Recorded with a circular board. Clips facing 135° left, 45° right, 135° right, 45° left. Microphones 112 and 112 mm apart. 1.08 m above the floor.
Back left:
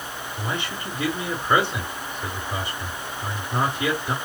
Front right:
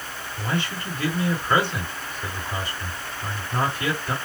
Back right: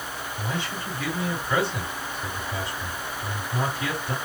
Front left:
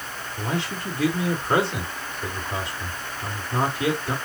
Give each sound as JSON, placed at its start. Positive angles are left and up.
{"t": 0.4, "sound": "a man speaking", "azimuth_deg": 70, "distance_m": 2.5}